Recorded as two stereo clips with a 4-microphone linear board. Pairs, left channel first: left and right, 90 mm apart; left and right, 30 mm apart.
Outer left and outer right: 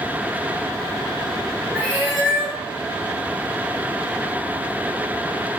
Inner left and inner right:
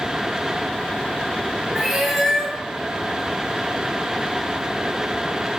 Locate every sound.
1.8 s a cat meowing: 10° right (ahead or behind), 1.2 m